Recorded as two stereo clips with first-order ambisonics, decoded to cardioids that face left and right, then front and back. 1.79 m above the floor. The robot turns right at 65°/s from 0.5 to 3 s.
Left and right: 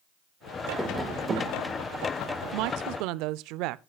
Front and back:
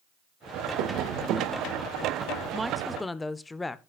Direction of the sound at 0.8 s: 175° left.